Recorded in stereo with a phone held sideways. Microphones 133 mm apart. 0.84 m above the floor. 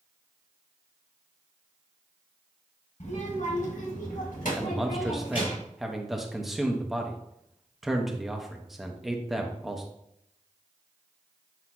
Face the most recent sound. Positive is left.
turn(degrees=0)  # may be behind; listen again after turning